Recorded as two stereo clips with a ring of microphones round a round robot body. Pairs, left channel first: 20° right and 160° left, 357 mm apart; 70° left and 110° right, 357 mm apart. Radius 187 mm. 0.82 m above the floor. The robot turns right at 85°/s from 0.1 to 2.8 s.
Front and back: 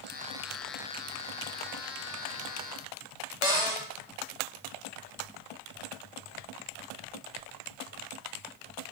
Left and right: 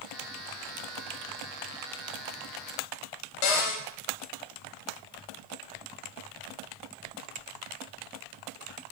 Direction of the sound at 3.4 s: 80° left.